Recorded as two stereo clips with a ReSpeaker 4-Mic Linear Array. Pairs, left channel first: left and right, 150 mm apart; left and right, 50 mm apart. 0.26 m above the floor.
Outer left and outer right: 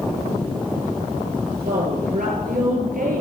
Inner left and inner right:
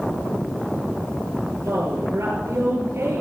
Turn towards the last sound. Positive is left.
turn(degrees=-60)  # may be behind; listen again after turning